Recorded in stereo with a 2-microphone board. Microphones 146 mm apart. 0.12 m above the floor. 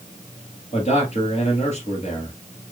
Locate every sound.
0.7 s a man speaking: 50° left (ahead or behind), 2.5 m